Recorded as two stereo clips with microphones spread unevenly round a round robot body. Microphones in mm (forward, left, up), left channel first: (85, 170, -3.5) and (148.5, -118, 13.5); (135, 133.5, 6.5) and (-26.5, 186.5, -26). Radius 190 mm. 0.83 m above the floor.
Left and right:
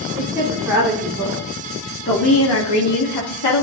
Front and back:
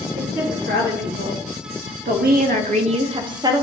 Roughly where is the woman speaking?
Behind.